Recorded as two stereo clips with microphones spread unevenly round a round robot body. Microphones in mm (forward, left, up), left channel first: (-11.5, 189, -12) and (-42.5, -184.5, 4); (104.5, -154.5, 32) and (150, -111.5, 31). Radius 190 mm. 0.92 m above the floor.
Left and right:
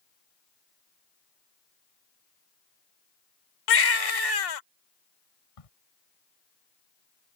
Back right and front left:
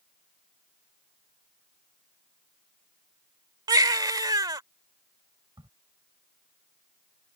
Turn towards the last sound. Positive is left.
turn(degrees=80)